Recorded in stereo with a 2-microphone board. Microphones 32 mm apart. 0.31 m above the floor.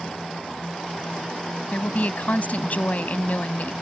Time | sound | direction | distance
1.7 | a woman speaking | 55° left (ahead or behind) | ?